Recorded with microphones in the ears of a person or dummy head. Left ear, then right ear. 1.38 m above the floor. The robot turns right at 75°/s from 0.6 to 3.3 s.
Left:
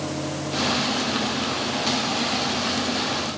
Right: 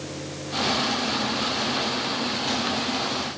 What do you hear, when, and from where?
Only background noise.